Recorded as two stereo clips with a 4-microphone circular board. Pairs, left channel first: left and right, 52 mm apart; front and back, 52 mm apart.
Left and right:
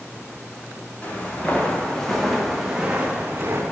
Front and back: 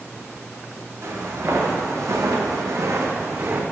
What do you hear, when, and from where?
1.0 s footsteps: 155° left, 2.5 m; by 3.6 s 135° right, 1.8 m